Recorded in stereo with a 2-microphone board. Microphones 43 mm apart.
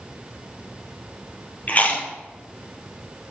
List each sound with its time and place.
1.7 s chewing: 35° left (ahead or behind), 2.5 m